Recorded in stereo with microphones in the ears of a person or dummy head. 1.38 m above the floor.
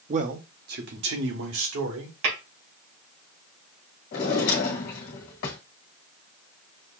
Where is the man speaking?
35° right (ahead or behind), 0.7 m; by 2.1 s 70° right (ahead or behind), 1.8 m.